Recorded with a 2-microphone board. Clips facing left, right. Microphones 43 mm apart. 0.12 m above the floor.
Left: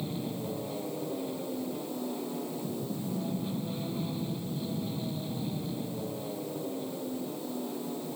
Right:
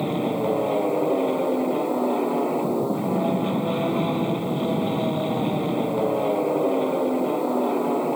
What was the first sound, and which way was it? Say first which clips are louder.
An aircraft: right 12 dB; 55° right (ahead or behind).